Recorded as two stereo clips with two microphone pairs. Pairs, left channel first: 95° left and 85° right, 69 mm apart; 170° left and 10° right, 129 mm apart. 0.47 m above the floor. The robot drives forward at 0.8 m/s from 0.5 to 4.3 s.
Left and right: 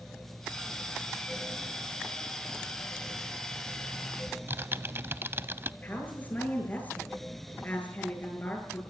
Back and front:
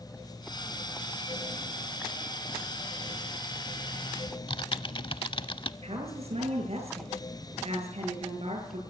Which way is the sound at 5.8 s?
30° left.